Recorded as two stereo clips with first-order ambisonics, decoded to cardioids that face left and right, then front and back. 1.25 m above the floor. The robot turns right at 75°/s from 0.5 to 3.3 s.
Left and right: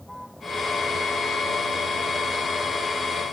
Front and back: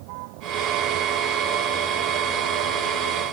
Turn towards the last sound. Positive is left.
turn(degrees=30)